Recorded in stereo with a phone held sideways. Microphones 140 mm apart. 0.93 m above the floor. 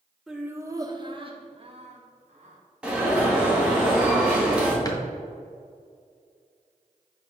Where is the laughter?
Centre (ahead or behind), 0.9 m; by 2.6 s 55° right (ahead or behind), 2.5 m.